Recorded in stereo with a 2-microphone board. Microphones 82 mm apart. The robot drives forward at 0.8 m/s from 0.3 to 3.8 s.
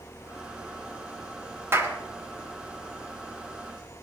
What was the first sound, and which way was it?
A clap, 35° right (ahead or behind).